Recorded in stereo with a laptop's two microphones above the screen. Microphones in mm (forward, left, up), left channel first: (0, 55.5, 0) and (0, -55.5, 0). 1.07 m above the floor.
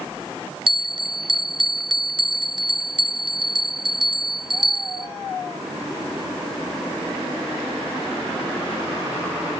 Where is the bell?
45° right (ahead or behind), 0.6 m.